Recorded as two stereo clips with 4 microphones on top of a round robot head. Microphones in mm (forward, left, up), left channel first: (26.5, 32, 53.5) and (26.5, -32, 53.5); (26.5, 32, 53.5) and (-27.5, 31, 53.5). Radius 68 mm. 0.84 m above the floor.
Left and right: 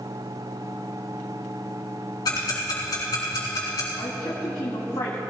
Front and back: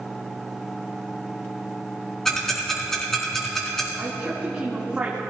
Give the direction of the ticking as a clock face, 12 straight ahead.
9 o'clock.